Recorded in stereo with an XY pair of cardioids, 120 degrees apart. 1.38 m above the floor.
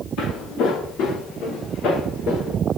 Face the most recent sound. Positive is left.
turn(degrees=70)